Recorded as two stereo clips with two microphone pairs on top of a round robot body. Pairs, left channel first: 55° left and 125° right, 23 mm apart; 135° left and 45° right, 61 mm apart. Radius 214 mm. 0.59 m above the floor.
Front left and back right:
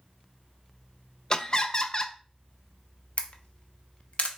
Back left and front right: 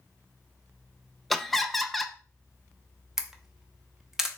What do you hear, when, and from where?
1.3 s laughter: 60° left, 0.6 m
3.2 s a camera shutter: 40° left, 0.6 m